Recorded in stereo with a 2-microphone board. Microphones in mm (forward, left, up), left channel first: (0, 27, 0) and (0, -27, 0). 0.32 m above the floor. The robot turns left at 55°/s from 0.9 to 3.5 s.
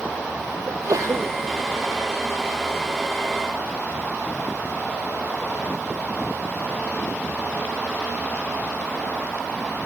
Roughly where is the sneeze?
Right.